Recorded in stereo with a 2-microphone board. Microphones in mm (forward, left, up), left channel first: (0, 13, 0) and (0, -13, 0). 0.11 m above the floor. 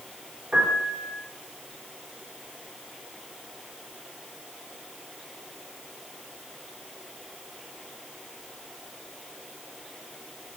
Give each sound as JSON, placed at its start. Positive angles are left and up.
{"t": 0.5, "sound": "a piano", "side_deg": -50, "distance_m": 2.5}